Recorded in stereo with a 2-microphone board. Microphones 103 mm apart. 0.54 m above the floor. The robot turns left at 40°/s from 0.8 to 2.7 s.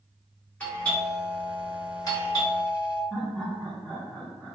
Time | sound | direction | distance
0.6 | a doorbell | 160° left | 2.0 m
3.1 | laughter | 10° left (ahead or behind) | 1.3 m